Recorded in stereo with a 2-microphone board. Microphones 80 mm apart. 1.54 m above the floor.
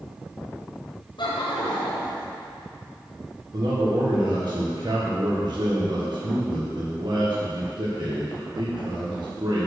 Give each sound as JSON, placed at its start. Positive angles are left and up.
{"t": 1.2, "sound": "laughter", "side_deg": 70, "distance_m": 0.8}
{"t": 3.5, "sound": "a man speaking", "side_deg": -60, "distance_m": 1.3}